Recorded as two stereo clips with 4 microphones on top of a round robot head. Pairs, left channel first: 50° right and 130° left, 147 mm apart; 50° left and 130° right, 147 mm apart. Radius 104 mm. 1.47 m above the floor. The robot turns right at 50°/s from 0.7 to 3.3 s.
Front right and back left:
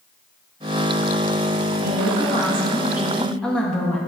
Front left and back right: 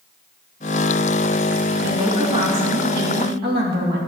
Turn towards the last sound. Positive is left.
turn(degrees=-135)